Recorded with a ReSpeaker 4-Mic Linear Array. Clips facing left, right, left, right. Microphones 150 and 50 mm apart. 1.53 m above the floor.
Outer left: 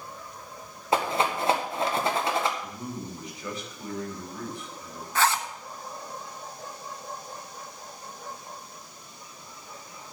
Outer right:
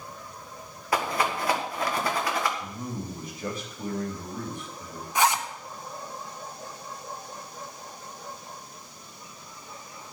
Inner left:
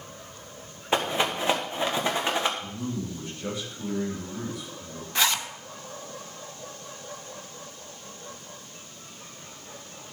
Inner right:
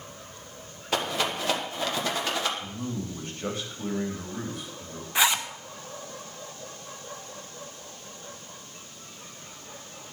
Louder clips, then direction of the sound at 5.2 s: Outer right 1 dB, inner right 2 dB; 15° right (ahead or behind).